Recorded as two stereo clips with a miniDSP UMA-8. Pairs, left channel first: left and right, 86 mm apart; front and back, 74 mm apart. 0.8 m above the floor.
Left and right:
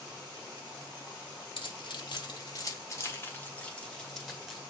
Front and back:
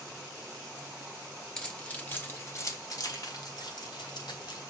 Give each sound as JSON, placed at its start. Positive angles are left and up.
{"t": 1.6, "sound": "keys jangling", "azimuth_deg": 80, "distance_m": 1.9}